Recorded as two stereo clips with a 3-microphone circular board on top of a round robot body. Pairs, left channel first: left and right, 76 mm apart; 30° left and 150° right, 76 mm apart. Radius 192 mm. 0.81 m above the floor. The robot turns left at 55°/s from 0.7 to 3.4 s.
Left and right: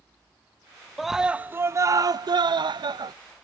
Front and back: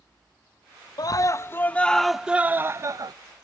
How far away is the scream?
About 0.6 m.